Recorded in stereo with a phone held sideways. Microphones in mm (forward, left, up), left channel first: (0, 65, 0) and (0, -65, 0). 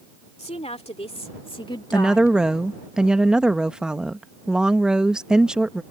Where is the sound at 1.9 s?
5° right (ahead or behind).